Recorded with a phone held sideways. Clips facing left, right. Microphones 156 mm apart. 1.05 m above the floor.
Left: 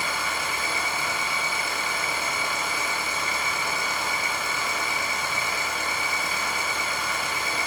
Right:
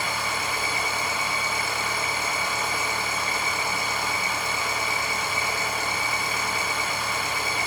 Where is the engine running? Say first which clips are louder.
Right 1 dB; 35° right (ahead or behind), 1.3 m.